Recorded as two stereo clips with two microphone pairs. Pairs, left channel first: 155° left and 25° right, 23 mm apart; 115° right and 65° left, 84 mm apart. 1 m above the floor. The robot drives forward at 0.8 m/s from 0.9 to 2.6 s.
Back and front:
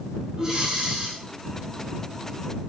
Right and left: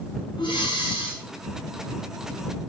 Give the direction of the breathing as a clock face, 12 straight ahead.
3 o'clock.